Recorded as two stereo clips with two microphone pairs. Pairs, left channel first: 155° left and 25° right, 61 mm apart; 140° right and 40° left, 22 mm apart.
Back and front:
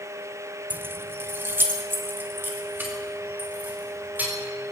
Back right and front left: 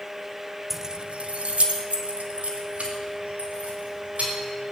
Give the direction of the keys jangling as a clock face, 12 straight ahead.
2 o'clock.